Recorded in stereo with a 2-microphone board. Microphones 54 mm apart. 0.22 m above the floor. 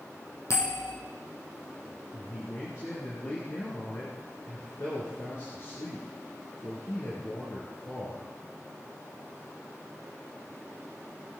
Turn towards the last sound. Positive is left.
turn(degrees=50)  # may be behind; listen again after turning